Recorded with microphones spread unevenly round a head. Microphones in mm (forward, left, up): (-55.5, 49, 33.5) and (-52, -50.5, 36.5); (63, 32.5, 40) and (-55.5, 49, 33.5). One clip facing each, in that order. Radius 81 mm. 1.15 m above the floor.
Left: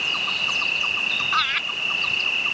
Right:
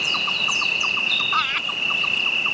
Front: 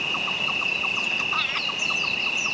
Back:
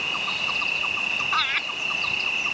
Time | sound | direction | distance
0.0 | an insect | 40° right | ?
1.3 | laughter | 135° right | ?